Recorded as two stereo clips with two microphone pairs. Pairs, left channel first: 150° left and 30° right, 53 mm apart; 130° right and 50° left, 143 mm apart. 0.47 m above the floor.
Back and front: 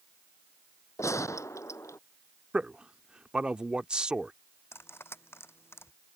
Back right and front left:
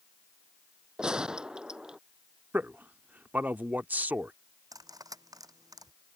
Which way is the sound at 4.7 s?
110° left.